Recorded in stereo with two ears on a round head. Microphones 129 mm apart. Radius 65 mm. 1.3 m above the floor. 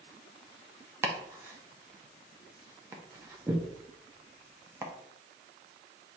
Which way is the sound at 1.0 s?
20° right (ahead or behind).